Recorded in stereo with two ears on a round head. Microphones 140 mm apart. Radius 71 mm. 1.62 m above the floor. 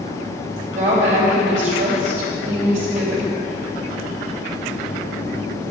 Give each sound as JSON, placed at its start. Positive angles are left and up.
{"t": 0.7, "sound": "a woman speaking", "side_deg": -50, "distance_m": 3.0}